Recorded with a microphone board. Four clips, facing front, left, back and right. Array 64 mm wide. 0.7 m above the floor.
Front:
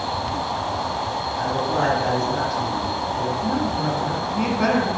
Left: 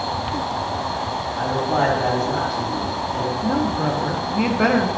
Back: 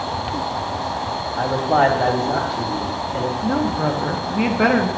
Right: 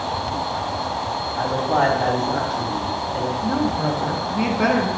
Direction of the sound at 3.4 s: 165° left.